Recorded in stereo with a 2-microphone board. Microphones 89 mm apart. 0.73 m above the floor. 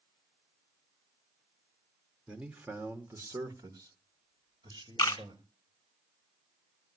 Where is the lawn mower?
No lawn mower in this recording.